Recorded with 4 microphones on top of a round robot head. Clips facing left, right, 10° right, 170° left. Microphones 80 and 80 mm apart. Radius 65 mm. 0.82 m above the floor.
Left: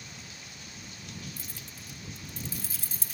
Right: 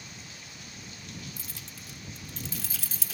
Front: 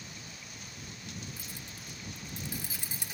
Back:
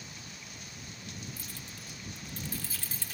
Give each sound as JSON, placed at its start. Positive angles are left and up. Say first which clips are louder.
{"t": 1.4, "sound": "keys jangling", "louder": "even, even", "azimuth_deg": -85}